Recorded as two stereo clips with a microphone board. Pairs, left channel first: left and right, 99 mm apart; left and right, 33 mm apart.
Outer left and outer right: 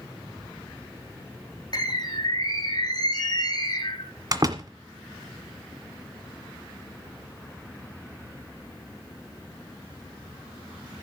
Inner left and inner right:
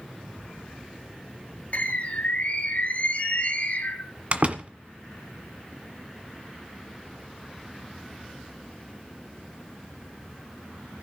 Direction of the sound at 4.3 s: 40° right (ahead or behind).